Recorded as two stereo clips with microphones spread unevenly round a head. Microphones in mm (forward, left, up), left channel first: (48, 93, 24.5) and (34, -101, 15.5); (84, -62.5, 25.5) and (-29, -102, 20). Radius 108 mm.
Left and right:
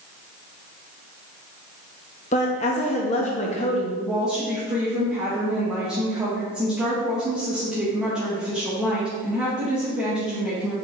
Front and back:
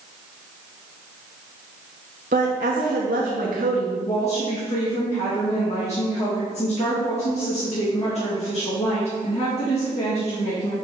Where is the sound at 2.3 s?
145° left, 1.0 m.